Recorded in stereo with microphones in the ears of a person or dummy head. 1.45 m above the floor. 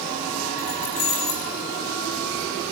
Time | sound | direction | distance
0.6 | keys jangling | 45° left (ahead or behind) | 3.5 m